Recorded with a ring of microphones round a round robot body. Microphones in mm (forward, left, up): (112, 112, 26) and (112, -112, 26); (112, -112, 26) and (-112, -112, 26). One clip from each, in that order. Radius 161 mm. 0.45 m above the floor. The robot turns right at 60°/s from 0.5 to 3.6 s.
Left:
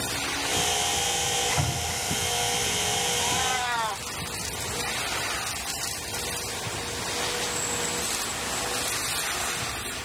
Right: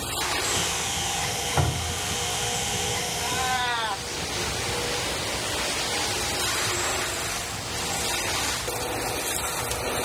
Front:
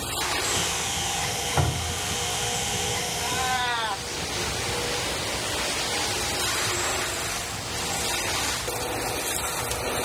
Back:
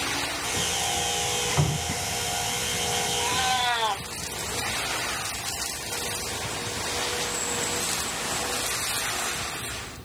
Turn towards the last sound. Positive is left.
turn(degrees=-145)